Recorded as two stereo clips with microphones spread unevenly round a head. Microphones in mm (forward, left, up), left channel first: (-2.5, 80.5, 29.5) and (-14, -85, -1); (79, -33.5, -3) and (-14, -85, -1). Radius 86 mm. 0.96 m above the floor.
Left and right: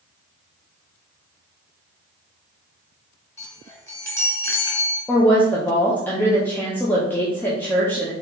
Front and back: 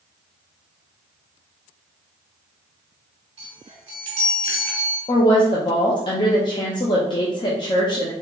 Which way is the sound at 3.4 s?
155° left.